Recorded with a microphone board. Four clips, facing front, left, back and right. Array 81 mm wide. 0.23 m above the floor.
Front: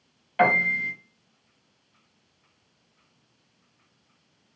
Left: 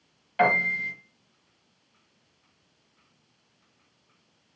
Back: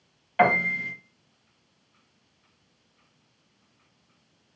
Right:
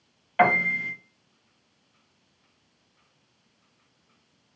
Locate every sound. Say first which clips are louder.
0.4 s a piano: right 2 dB, even; 110° right, 1.3 m